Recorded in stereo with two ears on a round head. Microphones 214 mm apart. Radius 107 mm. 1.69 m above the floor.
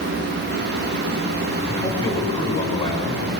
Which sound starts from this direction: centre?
A man speaking, at 1.7 s.